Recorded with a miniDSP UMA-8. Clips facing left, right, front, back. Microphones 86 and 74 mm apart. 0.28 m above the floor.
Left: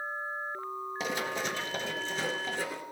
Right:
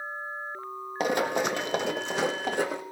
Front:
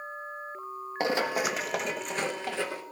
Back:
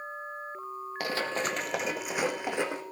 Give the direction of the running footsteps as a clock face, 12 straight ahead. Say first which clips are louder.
Right 9 dB, front 4 dB; 2 o'clock.